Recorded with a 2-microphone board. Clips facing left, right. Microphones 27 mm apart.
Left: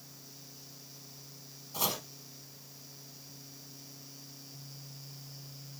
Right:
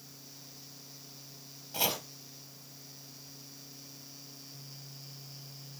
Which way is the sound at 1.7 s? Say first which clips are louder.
Right 2 dB; 55° right (ahead or behind).